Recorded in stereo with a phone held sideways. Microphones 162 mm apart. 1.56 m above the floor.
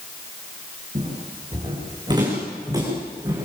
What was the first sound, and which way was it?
Footsteps, 30° right (ahead or behind).